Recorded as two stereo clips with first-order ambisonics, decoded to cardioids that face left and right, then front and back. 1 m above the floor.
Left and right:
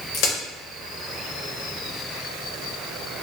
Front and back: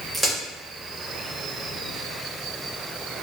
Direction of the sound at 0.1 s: 100° left.